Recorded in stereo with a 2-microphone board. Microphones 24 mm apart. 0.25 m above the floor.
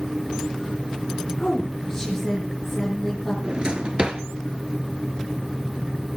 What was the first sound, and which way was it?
A woman speaking, 20° left (ahead or behind).